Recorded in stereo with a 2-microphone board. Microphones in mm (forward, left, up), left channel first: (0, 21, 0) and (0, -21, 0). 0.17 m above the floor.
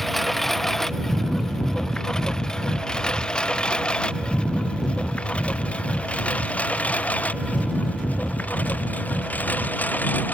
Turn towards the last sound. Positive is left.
turn(degrees=40)  # may be behind; listen again after turning